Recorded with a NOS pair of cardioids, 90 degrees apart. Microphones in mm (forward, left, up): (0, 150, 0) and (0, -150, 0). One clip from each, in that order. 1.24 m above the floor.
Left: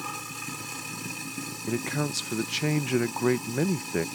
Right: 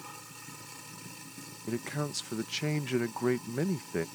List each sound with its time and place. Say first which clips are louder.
0.0 s running water: left 11 dB; 65° left
1.7 s a man speaking: left 5 dB; 30° left